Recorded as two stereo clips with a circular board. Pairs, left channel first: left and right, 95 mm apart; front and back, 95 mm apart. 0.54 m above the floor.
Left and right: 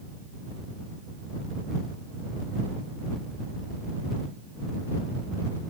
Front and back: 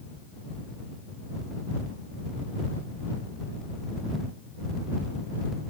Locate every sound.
Only background noise.